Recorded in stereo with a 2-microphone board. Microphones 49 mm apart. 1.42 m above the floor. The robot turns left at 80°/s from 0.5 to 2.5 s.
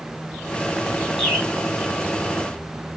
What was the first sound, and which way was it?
A bird, 10° left (ahead or behind).